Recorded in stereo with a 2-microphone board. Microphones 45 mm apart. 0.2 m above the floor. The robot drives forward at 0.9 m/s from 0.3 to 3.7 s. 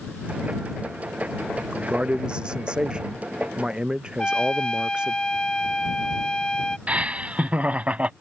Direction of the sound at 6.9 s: 30° right (ahead or behind).